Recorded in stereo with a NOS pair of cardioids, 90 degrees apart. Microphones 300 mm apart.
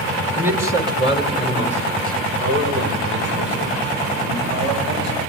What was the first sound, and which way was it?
A man speaking, 5° right.